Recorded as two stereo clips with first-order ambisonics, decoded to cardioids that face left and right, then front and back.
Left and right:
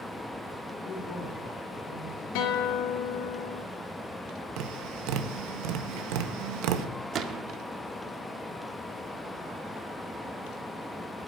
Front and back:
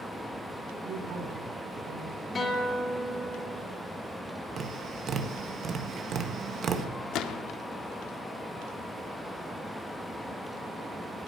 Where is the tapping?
115° right, 1.5 m.